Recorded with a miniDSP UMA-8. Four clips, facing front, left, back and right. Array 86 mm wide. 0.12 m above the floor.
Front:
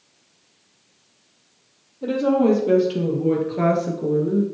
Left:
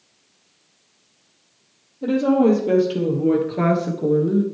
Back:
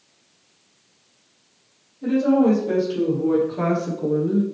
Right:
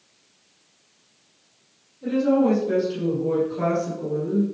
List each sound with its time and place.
2.0 s a woman speaking: 55° left, 4 m; by 4.4 s 115° left, 1.6 m